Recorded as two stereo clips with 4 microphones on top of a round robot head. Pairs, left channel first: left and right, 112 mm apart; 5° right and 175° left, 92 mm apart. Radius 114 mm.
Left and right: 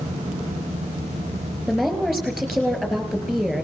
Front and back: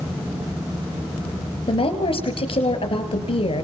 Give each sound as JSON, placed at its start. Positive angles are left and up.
{"t": 1.7, "sound": "a woman speaking", "azimuth_deg": -5, "distance_m": 4.0}